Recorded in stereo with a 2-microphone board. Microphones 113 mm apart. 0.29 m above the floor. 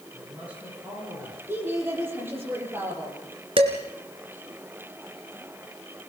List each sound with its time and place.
0.1 s a man speaking: 15° right (ahead or behind), 10 m
1.5 s a woman speaking: 20° right (ahead or behind), 9.5 m
3.6 s dishes clattering: 55° right (ahead or behind), 2.5 m